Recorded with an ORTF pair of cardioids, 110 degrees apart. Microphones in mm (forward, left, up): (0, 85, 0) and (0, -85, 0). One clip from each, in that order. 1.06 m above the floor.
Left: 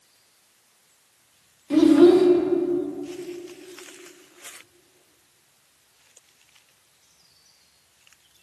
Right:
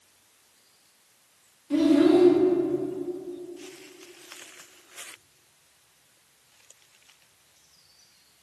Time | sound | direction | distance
1.7 | a child speaking | 35° left | 0.7 m